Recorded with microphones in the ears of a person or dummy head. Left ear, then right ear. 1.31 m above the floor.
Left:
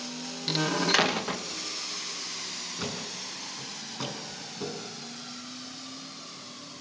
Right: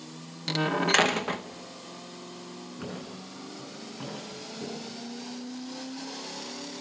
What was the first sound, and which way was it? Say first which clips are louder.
A door slam: even; 10° right (ahead or behind).